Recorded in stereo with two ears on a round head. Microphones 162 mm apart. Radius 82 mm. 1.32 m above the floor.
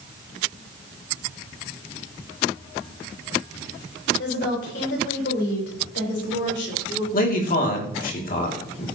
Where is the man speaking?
50° left (ahead or behind), 3 m.